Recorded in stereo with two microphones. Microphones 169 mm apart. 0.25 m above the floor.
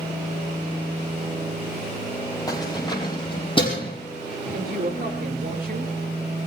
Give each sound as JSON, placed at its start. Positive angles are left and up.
{"t": 2.5, "sound": "keys jangling", "side_deg": 20, "distance_m": 5.0}
{"t": 4.5, "sound": "a woman speaking", "side_deg": -60, "distance_m": 4.5}